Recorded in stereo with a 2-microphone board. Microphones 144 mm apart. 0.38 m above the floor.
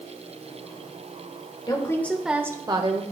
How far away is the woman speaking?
About 1.1 m.